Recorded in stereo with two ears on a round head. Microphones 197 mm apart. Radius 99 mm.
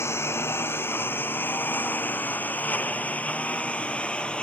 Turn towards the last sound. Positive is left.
turn(degrees=5)  # may be behind; listen again after turning